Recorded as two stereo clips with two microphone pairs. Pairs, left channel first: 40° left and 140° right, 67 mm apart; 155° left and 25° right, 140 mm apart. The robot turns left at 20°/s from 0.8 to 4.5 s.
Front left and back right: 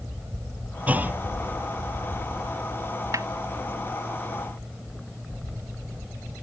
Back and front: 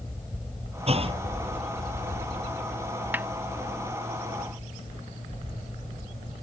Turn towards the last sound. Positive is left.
turn(degrees=-130)